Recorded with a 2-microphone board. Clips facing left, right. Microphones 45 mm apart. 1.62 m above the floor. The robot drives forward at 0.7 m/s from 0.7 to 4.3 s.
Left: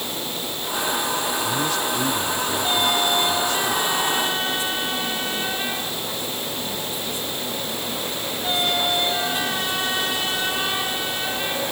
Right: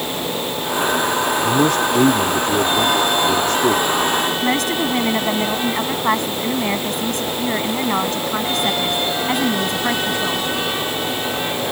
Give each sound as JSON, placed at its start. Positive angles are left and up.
{"t": 1.4, "sound": "a man speaking", "side_deg": -50}
{"t": 4.4, "sound": "a woman speaking", "side_deg": -70}